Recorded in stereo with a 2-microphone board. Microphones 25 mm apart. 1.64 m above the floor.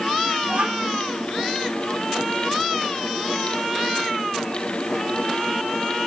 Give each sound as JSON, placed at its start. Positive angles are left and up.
{"t": 0.4, "sound": "a child speaking", "side_deg": -70, "distance_m": 2.5}